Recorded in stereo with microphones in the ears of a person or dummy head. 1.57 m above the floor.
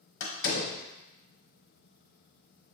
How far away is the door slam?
About 1.1 m.